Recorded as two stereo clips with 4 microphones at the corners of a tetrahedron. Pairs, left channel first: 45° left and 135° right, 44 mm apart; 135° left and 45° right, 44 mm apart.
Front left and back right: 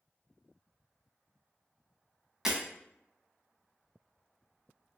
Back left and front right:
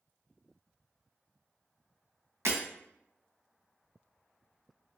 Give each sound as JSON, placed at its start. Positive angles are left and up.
{"t": 2.5, "sound": "breaking glass", "azimuth_deg": -55, "distance_m": 0.9}